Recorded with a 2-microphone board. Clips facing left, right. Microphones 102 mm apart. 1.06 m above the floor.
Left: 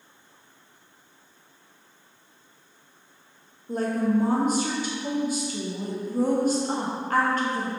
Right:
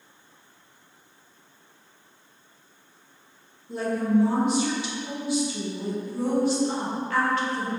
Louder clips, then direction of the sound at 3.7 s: Even; 45° left (ahead or behind).